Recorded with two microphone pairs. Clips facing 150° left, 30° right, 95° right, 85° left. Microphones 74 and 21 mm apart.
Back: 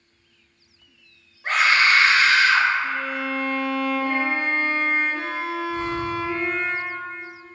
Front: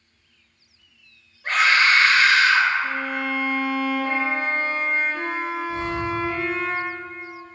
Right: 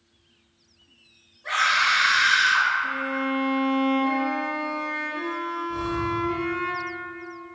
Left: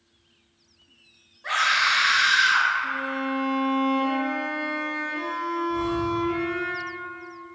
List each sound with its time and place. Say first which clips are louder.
1.4 s a scream: even, even; 90° left, 1.4 m
2.8 s a violin: front 1 dB, right 1 dB; 15° left, 1.2 m
5.7 s breathing: even, even; 80° right, 0.8 m